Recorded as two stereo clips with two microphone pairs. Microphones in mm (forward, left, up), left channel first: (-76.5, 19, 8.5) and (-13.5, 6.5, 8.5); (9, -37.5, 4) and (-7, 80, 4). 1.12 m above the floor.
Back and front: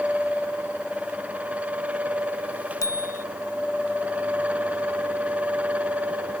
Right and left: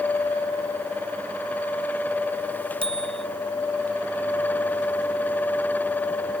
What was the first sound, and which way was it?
A bicycle bell, 140° left.